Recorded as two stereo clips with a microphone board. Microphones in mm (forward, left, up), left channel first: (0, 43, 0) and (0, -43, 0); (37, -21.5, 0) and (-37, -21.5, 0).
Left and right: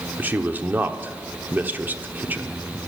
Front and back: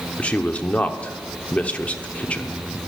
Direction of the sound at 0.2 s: 50° right.